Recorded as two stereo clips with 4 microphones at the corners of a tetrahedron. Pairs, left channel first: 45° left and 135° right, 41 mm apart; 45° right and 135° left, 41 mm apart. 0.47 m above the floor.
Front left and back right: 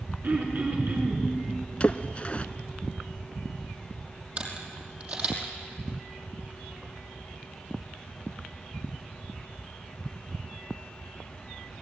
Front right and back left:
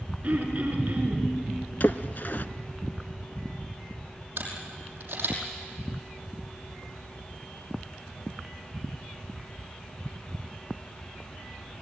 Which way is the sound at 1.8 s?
10° right.